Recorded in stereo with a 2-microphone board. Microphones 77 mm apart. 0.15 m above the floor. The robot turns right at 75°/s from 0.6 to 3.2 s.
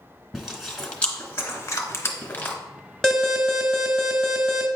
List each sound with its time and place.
0.3 s chewing: 5° right (ahead or behind), 1.1 m; by 2.5 s 25° left (ahead or behind), 1.1 m
3.0 s an alarm: 5° left (ahead or behind), 1.1 m; by 4.7 s 5° right (ahead or behind), 1.1 m